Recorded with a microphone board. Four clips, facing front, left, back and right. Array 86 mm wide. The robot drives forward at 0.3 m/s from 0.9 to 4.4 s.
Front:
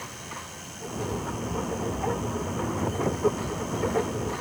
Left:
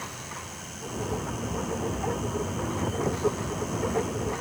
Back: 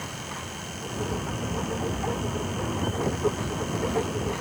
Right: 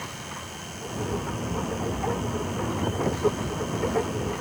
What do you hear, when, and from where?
Only background noise.